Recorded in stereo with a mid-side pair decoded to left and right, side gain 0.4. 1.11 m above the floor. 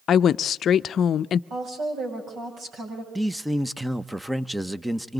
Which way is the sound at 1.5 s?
70° right.